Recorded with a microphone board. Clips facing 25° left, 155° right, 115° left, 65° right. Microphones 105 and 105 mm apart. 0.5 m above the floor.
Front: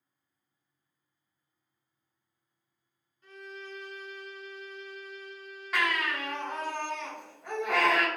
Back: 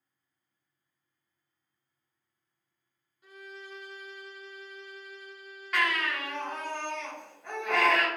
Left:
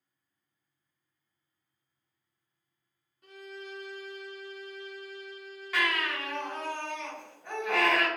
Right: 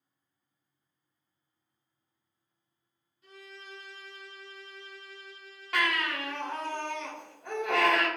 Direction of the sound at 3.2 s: 125° left.